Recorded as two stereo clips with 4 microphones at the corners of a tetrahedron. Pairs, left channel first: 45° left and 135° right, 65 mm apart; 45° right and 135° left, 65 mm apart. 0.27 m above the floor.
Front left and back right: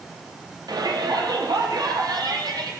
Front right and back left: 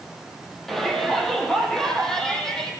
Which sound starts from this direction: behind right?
A shout, at 0.7 s.